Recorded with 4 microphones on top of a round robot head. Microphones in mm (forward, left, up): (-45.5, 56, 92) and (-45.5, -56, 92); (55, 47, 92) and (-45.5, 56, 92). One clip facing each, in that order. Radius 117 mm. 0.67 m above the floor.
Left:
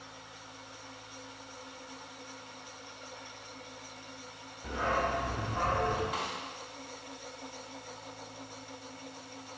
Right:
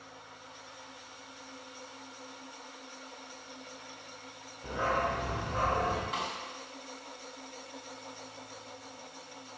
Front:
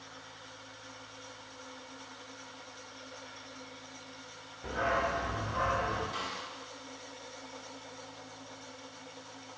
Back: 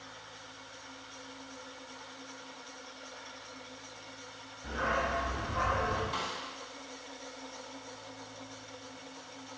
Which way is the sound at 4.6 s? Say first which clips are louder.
Even, front 1 dB; 20° right.